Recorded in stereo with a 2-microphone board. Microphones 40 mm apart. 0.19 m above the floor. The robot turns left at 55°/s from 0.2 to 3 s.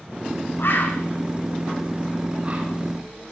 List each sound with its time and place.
0.6 s a bird: 75° left (ahead or behind), 4.5 m; by 2.7 s 40° right (ahead or behind), 4.5 m